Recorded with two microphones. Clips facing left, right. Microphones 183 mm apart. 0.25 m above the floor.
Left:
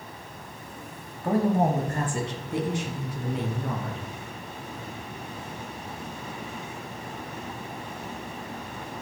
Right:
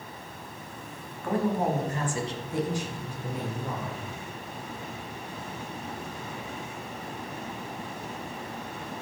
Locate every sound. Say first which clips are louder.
1.2 s a man speaking: left 4 dB; 30° left (ahead or behind), 1.2 m; by 4.0 s 70° left (ahead or behind), 3 m